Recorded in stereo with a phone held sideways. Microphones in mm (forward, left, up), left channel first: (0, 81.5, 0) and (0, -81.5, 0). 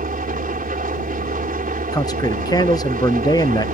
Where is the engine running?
60° right (ahead or behind).